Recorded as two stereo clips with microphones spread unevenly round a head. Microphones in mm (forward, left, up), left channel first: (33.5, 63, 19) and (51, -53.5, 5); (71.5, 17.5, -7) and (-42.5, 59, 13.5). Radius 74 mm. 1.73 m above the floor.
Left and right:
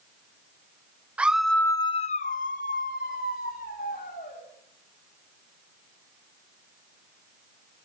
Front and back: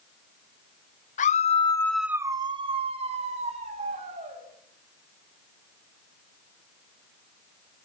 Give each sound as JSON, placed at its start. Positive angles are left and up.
{"t": 1.2, "sound": "a scream", "azimuth_deg": 0, "distance_m": 1.2}